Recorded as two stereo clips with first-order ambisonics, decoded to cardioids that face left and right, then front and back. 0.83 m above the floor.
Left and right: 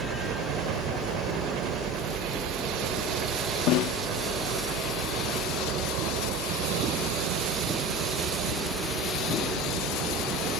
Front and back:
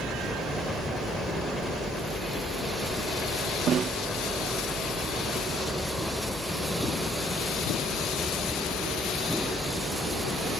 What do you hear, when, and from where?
0.0 s a helicopter: 85° right
3.7 s a snare drum: 120° left